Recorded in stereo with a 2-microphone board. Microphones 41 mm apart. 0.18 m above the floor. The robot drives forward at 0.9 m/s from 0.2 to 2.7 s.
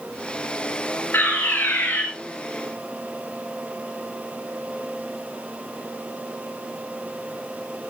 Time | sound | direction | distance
1.1 | a fire alarm | 60° left (ahead or behind) | 5 m